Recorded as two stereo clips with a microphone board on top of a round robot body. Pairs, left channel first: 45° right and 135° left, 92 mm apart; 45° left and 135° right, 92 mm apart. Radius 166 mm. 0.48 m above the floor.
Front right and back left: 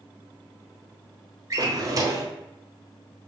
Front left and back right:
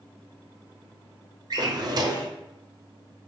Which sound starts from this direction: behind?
A drawer, at 1.5 s.